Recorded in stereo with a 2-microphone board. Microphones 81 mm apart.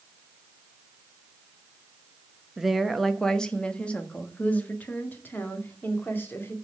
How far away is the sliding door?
I don't hear a sliding door.